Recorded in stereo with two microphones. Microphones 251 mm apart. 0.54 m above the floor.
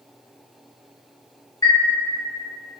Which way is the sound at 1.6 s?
15° left (ahead or behind).